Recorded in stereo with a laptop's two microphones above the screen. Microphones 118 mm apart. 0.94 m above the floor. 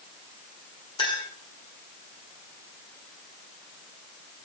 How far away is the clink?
About 1.5 m.